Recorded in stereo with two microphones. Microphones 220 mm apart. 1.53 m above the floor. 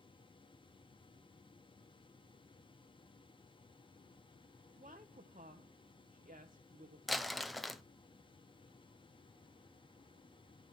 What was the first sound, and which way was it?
A woman speaking, 35° right (ahead or behind).